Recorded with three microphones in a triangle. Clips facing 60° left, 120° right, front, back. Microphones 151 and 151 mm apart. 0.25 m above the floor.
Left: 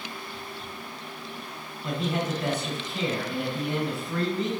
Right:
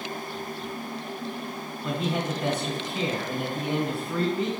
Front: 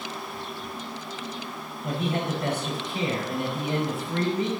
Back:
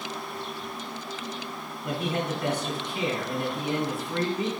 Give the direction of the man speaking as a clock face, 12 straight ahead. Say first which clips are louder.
Even, front 1 dB; 1 o'clock.